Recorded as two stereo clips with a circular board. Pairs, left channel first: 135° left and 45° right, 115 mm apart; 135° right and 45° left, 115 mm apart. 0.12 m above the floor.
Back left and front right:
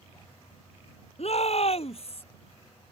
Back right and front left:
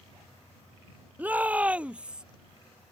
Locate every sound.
1.2 s a shout: 120° left; by 2.2 s 125° left